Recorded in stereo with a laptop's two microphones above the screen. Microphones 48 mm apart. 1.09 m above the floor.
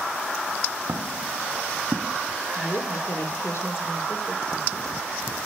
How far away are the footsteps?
About 3 m.